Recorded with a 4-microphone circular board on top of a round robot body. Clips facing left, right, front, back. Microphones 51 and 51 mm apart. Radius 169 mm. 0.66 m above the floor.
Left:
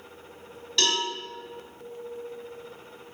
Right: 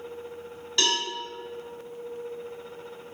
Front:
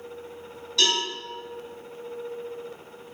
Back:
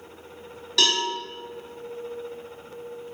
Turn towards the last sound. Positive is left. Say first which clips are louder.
# even, back 1 dB
turn(degrees=-175)